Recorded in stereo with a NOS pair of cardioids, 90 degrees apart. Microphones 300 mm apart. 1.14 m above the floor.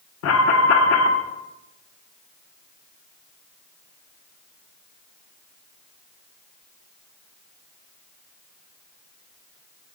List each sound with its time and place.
0.2 s an alarm: 55° left, 0.8 m